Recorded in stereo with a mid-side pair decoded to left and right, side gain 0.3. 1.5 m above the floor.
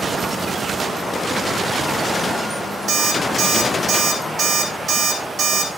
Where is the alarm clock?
65° right, 9.5 m.